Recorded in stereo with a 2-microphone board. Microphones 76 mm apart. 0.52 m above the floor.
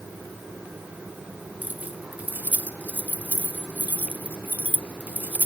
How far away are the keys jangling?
About 1.0 m.